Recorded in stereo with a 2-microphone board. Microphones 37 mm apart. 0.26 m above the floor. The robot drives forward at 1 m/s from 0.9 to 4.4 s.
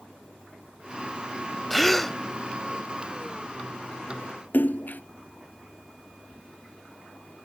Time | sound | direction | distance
1.7 | a gasp | 5° left (ahead or behind) | ?
4.5 | a splash | 55° left (ahead or behind) | ?